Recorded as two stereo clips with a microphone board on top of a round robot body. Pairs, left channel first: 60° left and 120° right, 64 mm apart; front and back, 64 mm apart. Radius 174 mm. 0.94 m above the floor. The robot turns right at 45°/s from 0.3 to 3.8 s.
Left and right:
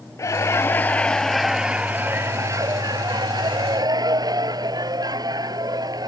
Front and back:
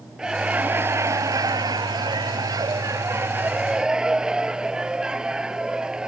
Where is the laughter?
100° left; by 6.1 s 105° right.